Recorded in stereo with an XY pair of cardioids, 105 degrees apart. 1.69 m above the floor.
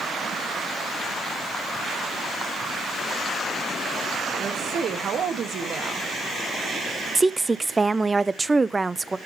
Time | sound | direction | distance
4.4 | a woman speaking | 55° right | 2.0 m
7.2 | a woman speaking | 15° right | 0.5 m